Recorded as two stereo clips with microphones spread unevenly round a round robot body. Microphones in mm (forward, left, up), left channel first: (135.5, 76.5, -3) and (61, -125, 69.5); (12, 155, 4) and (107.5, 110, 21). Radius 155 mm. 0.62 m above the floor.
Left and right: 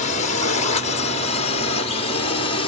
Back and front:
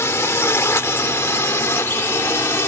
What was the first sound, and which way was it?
A drone, 95° left.